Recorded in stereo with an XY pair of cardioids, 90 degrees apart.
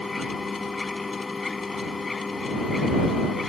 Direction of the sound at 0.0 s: 25° left.